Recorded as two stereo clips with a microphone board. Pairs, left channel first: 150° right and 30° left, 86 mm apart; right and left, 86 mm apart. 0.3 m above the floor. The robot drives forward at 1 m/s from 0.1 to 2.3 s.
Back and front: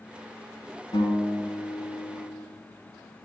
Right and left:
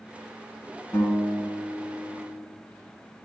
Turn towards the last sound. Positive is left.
turn(degrees=-160)